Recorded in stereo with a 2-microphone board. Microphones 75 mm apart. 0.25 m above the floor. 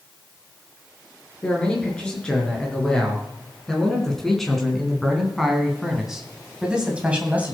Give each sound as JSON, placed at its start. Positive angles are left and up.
{"t": 1.4, "sound": "a man speaking", "side_deg": 15, "distance_m": 5.0}